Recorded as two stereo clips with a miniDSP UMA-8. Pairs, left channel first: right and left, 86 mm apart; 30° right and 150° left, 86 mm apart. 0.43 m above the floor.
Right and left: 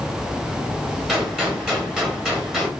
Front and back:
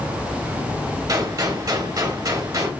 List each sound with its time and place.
1.1 s a gunshot: 170° left, 1.3 m